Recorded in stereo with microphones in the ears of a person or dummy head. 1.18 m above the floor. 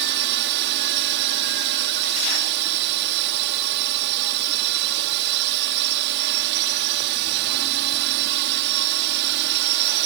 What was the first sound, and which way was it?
A drone, 55° right (ahead or behind).